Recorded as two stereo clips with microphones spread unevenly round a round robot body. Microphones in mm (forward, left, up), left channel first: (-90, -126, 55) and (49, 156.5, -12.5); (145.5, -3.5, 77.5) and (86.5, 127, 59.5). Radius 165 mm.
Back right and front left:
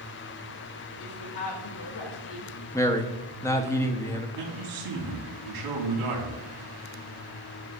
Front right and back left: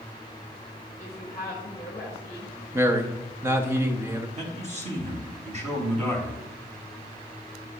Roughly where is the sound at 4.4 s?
Left.